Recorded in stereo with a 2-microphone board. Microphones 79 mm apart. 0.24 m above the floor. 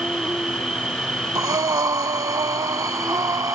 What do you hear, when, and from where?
0.0 s an insect: 10° right (ahead or behind)
1.4 s breathing: 50° right (ahead or behind)